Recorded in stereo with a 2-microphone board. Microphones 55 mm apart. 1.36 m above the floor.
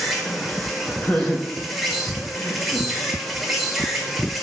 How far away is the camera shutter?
No camera shutter in this recording.